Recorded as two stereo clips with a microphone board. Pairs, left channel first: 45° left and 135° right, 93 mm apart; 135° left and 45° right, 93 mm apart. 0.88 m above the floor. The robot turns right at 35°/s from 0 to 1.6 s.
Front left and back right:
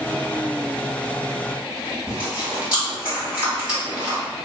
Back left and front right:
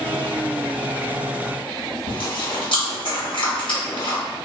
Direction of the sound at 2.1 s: 145° left.